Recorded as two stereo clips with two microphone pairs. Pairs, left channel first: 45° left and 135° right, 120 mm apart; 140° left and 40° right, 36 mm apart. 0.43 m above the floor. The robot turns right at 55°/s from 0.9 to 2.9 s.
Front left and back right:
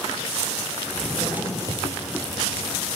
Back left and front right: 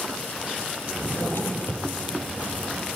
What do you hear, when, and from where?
0.9 s a drawer: 125° left, 3.5 m; by 1.9 s 175° left, 3.5 m